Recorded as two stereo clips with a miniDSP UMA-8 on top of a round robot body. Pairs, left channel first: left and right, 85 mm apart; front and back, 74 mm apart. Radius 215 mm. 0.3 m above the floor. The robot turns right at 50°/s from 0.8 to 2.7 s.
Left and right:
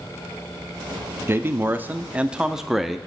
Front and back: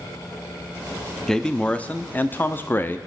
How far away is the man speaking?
About 0.9 m.